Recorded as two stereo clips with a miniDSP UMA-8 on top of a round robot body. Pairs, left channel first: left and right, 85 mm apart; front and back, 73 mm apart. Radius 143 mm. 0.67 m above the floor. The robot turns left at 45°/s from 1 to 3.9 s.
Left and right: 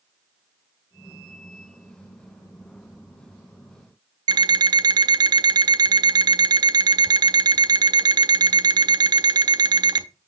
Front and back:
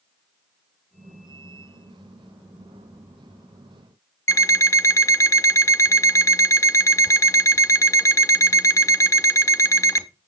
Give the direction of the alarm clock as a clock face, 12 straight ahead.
2 o'clock.